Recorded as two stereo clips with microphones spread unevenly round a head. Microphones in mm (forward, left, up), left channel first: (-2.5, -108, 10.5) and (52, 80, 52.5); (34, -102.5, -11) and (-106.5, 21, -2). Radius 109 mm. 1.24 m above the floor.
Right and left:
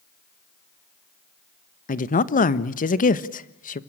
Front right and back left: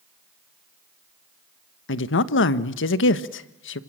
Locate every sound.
1.9 s a woman speaking: 60° right, 1.3 m